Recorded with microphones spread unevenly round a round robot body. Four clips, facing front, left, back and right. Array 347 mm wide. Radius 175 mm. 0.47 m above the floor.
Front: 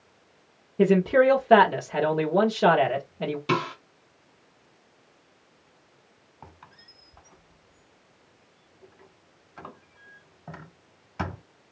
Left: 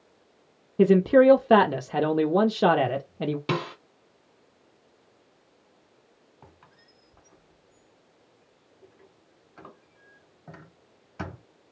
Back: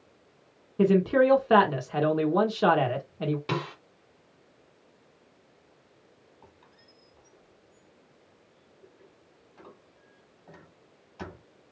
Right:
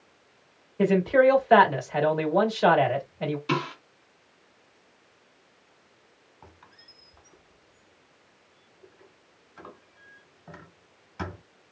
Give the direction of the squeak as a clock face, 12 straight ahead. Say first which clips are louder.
Right 2 dB, front 10 dB; 11 o'clock.